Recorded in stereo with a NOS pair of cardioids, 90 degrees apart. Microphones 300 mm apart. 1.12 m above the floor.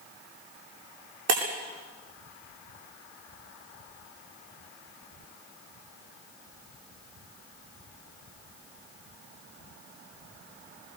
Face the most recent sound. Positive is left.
turn(degrees=-65)